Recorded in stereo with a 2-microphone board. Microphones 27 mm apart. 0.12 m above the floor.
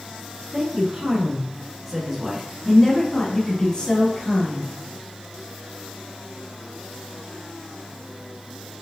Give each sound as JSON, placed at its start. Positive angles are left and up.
{"t": 0.5, "sound": "a man speaking", "side_deg": -40, "distance_m": 1.4}